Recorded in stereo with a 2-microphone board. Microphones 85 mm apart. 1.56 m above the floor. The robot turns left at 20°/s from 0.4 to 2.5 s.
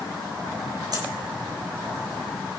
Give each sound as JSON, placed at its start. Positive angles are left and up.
{"t": 0.9, "sound": "a dropped coin", "side_deg": -55, "distance_m": 3.5}